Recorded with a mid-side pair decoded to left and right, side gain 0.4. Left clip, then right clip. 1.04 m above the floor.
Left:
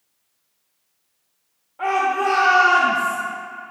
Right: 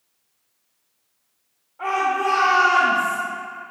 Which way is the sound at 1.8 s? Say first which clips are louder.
Left 2 dB; 60° left.